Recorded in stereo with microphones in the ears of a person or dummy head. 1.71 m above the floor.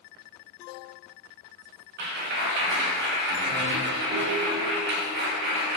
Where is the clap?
60° right (ahead or behind), 2.5 m.